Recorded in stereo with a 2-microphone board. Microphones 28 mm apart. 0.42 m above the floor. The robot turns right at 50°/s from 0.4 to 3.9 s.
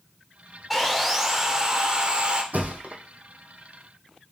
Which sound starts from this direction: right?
A thud, at 2.5 s.